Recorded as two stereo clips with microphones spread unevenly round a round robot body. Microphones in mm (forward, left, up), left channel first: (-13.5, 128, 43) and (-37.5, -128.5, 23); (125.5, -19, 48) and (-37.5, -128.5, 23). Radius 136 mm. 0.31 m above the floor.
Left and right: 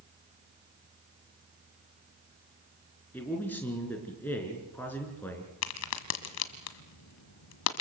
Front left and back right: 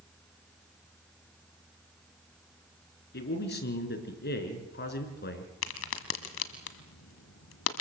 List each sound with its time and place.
3.1 s a man speaking: straight ahead, 4.5 m
5.6 s a crack: 55° left, 1.7 m